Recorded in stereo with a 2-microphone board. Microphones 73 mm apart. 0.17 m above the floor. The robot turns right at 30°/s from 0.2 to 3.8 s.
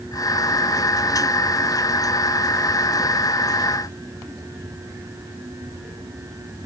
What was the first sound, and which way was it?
Only background noise.